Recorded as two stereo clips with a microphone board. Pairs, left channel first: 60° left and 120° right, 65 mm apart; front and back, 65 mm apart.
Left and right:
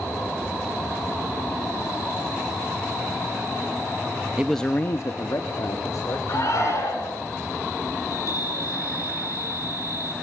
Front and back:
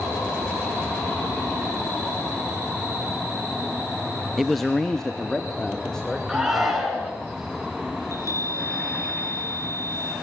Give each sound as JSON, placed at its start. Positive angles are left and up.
{"t": 4.4, "sound": "a man speaking", "azimuth_deg": -95, "distance_m": 0.6}
{"t": 6.3, "sound": "a shout", "azimuth_deg": 95, "distance_m": 8.0}
{"t": 8.0, "sound": "a chime", "azimuth_deg": 30, "distance_m": 8.5}